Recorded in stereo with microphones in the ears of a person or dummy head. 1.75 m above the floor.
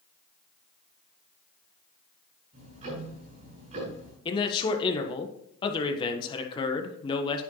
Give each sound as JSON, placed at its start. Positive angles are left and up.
{"t": 2.5, "sound": "ticking", "side_deg": -45, "distance_m": 5.5}
{"t": 4.2, "sound": "a man speaking", "side_deg": 30, "distance_m": 1.3}